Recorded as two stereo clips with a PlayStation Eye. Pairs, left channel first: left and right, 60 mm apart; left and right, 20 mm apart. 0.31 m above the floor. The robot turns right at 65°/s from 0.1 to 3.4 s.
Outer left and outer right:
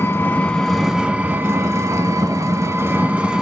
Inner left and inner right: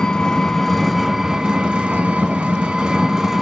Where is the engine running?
135° left, 0.9 m; by 3.4 s 10° right, 0.9 m.